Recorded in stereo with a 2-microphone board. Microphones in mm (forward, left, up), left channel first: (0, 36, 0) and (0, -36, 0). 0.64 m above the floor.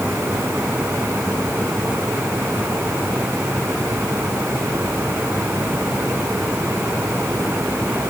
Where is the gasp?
No gasp in this recording.